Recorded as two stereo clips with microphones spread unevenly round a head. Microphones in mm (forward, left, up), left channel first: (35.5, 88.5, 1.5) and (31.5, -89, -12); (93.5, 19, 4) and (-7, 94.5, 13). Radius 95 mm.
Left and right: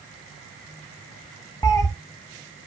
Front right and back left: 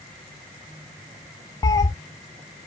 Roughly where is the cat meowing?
Ahead.